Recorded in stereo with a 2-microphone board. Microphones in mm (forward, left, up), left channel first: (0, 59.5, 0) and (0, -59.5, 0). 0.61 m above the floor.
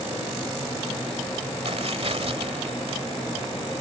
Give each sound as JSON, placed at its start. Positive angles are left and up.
{"t": 1.6, "sound": "tearing paper", "side_deg": -55}